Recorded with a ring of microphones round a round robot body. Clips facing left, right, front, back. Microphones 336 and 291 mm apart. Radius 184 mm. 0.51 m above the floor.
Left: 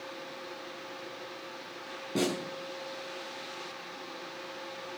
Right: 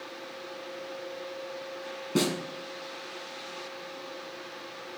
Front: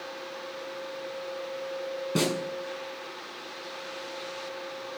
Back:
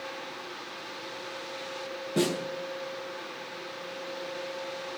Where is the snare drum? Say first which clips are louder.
Right 3 dB, back 1 dB; 25° right, 6.5 m.